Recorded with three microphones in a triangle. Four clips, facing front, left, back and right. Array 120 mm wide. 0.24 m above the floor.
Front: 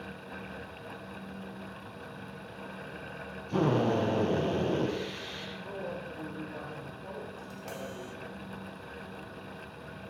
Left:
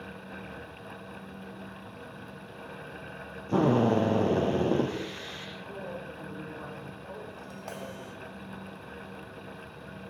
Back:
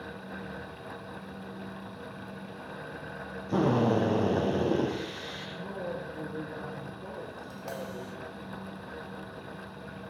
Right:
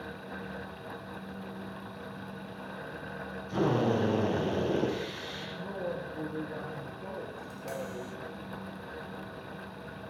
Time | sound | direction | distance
3.5 | a drill | 115° left | 8.5 m
5.6 | a woman speaking | 135° right | 6 m
7.4 | tapping | 120° left | 1.8 m